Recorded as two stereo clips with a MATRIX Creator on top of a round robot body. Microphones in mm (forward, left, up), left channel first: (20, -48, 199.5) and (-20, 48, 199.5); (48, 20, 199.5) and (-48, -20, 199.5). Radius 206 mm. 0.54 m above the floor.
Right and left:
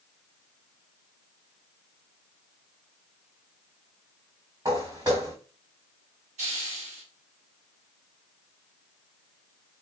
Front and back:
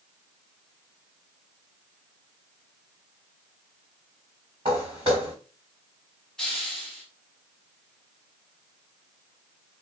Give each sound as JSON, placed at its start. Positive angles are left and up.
{"t": 4.7, "sound": "footsteps", "azimuth_deg": 170, "distance_m": 3.0}
{"t": 6.4, "sound": "a hiss", "azimuth_deg": 110, "distance_m": 0.7}